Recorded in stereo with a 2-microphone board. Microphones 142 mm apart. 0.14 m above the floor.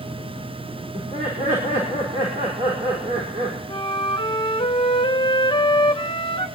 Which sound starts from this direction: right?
Laughter, at 0.9 s.